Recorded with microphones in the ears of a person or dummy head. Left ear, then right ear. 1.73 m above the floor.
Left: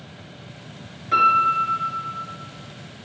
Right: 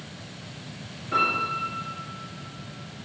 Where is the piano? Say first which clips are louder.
Left 8 dB; 70° left (ahead or behind), 5 m.